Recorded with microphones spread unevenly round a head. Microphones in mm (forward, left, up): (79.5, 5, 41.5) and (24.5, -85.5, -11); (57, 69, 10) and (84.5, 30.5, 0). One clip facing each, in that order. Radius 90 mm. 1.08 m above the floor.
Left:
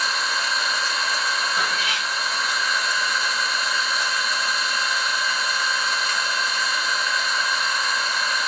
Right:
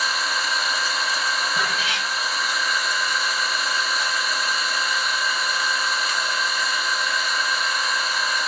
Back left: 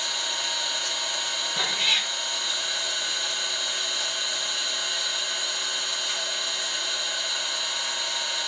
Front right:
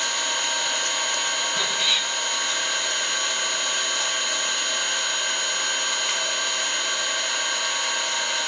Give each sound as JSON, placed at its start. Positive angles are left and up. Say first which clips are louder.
{"t": 0.0, "sound": "an engine running", "louder": "even, front right 4 dB", "azimuth_deg": -20, "distance_m": 0.8}
{"t": 1.6, "sound": "a cat meowing", "louder": "even, back left 2 dB", "azimuth_deg": -165, "distance_m": 1.5}